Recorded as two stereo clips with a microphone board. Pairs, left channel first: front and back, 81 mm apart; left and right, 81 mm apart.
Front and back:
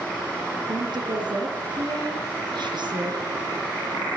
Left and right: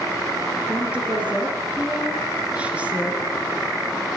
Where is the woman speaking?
165° right, 5 m.